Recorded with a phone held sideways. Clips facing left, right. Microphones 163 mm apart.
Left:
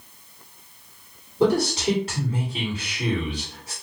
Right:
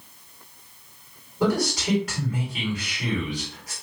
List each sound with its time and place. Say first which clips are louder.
1.4 s a man speaking: left 3 dB; 30° left (ahead or behind), 2.5 m